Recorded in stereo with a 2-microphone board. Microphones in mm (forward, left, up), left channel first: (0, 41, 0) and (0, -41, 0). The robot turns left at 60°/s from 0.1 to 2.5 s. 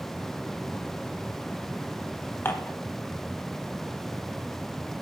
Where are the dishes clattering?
25° left (ahead or behind), 0.7 m.